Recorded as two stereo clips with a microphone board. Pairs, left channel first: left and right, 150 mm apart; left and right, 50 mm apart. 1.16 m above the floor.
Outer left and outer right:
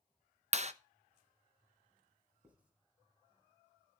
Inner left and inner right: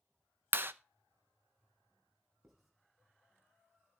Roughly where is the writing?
Centre.